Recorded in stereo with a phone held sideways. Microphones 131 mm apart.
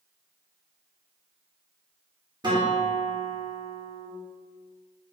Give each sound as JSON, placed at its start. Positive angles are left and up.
{"t": 2.4, "sound": "a guitar", "side_deg": -35, "distance_m": 0.9}